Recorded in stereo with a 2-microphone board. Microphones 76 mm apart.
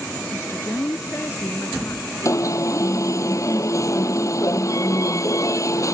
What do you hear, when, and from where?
0.3 s a woman speaking: 40° left (ahead or behind); by 3.2 s 45° left (ahead or behind)
2.2 s an alarm: 40° left (ahead or behind)